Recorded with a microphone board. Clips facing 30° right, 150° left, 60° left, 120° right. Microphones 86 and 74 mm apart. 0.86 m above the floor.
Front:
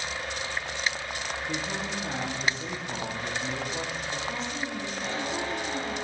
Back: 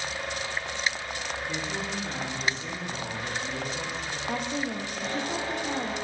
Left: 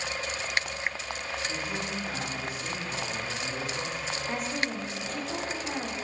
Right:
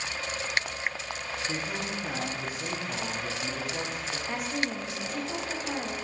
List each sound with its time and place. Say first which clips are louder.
1.5 s a man speaking: front 1 dB, even; 75° right, 1.5 m
4.3 s a woman speaking: back 3 dB, right 1 dB; 155° left, 1.0 m